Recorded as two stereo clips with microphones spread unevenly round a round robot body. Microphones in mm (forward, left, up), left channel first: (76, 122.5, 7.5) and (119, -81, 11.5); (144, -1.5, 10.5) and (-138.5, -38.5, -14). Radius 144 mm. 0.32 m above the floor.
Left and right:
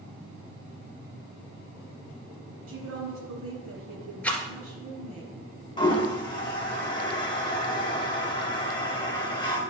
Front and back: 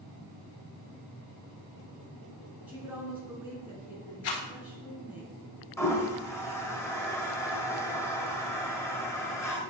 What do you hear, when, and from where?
2.7 s a woman speaking: 90° right, 3 m
4.2 s a rattle: 20° left, 2 m
5.8 s a toilet flushing: 90° left, 1.5 m